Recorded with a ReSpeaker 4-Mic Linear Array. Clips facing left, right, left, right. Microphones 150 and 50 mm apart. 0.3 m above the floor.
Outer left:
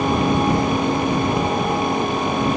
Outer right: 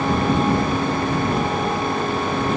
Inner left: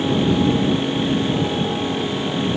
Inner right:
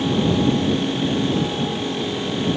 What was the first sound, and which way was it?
Only background noise.